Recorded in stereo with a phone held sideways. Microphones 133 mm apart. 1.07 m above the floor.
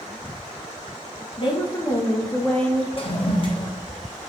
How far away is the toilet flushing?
About 1.0 m.